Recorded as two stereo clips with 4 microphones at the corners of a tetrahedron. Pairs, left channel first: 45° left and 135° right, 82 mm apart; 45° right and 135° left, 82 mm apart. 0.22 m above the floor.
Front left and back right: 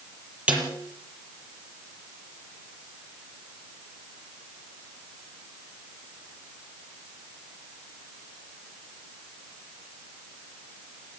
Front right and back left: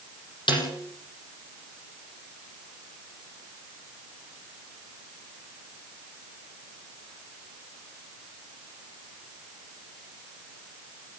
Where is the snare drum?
60° right, 7 m.